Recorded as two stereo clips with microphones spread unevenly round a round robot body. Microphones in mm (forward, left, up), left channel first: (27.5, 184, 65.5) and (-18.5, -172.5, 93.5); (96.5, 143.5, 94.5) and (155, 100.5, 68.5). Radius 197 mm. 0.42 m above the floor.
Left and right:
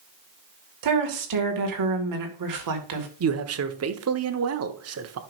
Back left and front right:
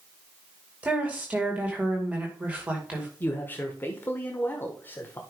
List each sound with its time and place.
0.8 s a woman speaking: 85° right, 2 m
3.2 s a man speaking: 140° right, 1.1 m